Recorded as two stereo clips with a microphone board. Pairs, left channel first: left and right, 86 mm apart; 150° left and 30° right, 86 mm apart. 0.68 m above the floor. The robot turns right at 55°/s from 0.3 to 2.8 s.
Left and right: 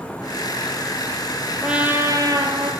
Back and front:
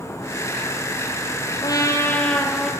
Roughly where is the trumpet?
Behind.